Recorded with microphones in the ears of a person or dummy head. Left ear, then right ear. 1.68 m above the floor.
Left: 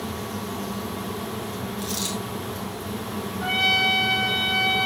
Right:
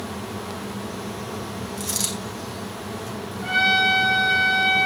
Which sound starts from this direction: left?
A trumpet, at 3.4 s.